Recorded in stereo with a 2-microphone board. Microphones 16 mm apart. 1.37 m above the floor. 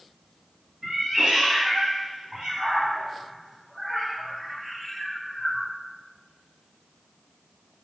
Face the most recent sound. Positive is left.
turn(degrees=15)  # may be behind; listen again after turning